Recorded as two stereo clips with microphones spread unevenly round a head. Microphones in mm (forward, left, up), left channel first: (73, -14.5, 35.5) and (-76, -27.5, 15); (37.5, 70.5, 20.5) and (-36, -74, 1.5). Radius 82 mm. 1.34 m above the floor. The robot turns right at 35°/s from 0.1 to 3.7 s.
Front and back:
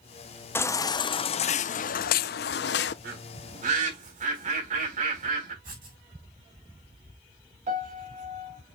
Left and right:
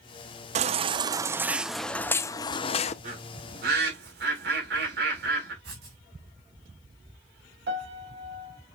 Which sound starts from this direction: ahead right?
A baby crying, at 0.6 s.